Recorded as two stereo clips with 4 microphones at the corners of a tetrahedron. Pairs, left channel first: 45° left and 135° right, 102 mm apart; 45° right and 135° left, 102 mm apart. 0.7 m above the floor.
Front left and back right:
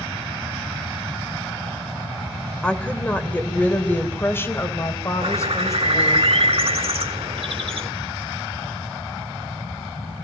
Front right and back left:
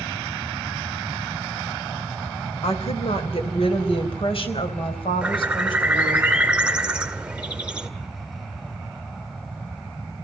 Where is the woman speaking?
35° right, 3.5 m; by 6.2 s 10° right, 4.5 m.